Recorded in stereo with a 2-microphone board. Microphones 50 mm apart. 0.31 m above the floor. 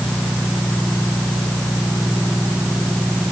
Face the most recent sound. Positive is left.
No sound to turn to.